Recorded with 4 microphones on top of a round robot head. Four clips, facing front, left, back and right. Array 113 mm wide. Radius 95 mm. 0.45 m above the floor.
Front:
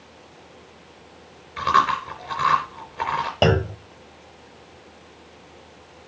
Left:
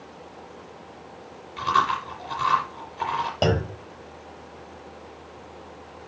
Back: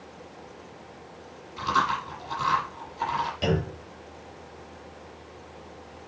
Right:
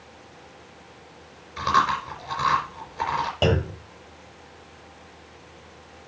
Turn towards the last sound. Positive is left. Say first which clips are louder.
# even, front 11 dB
turn(degrees=15)